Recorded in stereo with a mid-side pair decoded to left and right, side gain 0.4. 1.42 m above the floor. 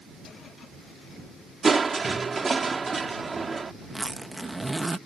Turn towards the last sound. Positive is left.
turn(degrees=-25)